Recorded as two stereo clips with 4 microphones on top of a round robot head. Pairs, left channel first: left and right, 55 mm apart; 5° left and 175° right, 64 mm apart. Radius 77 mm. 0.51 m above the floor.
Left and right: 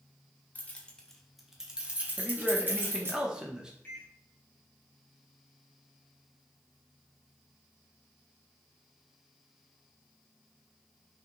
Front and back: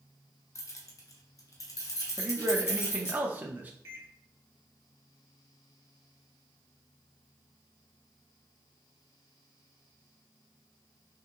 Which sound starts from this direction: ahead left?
Keys jangling, at 0.6 s.